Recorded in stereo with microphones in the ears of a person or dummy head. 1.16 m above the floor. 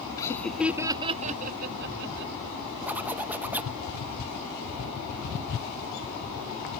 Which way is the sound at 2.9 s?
5° right (ahead or behind).